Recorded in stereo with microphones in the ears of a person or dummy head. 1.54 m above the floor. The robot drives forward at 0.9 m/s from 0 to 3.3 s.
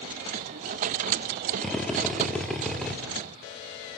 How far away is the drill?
About 1.4 m.